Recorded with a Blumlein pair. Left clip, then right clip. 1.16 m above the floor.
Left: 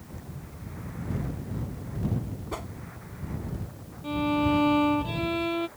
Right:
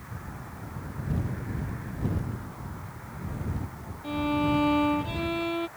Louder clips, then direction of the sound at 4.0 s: Left 1 dB; 5° left.